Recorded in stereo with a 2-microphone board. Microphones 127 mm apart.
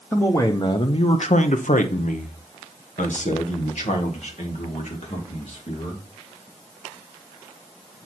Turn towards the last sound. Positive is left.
turn(degrees=55)  # may be behind; listen again after turning